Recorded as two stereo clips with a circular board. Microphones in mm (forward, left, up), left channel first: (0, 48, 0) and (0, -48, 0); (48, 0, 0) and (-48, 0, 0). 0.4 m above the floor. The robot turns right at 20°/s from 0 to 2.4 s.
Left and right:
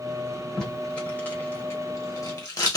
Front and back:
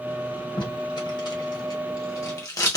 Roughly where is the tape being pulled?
Ahead.